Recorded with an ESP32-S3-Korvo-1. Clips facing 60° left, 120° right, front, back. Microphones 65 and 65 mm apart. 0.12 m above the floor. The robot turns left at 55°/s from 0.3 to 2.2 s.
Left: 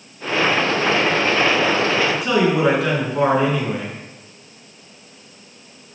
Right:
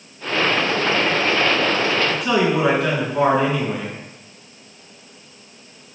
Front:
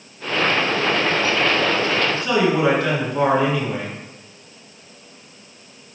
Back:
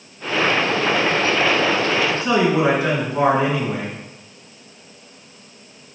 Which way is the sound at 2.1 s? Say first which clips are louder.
Left 1 dB, back 1 dB; 155° left.